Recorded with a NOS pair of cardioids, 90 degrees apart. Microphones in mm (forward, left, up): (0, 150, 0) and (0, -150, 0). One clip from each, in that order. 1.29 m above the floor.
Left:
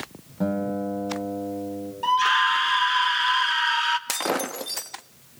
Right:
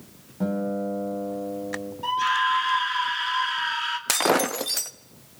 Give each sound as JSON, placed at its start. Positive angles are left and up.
{"t": 0.4, "sound": "a guitar", "azimuth_deg": 20, "distance_m": 5.0}
{"t": 2.0, "sound": "a scream", "azimuth_deg": 35, "distance_m": 2.5}
{"t": 4.1, "sound": "breaking glass", "azimuth_deg": -30, "distance_m": 1.1}